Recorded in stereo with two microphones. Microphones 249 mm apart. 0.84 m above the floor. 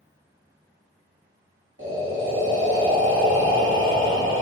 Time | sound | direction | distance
1.8 | breathing | 55° right (ahead or behind) | 1.5 m